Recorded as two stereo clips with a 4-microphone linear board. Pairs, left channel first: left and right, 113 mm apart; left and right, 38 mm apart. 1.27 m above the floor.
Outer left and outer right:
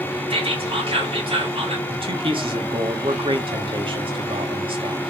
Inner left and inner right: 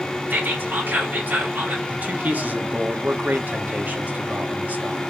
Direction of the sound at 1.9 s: 50° right (ahead or behind).